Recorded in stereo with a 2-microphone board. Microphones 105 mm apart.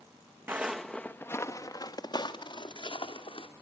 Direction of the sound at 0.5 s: 20° right (ahead or behind).